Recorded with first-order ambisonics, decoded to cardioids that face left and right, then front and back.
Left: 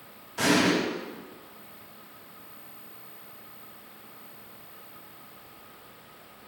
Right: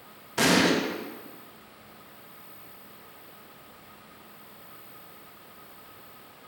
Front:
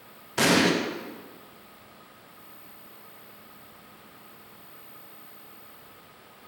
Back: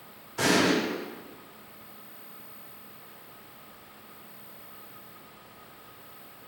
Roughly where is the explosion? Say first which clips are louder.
Right 1 dB, front 2 dB; ahead right.